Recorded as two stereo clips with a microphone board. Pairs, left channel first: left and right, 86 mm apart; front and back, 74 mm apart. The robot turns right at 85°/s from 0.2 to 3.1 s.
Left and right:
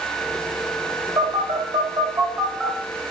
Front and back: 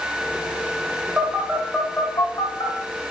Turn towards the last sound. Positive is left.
turn(degrees=40)